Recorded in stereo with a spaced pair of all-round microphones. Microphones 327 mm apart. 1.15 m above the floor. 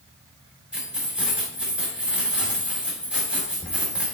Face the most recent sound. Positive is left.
turn(degrees=-5)  # may be behind; listen again after turning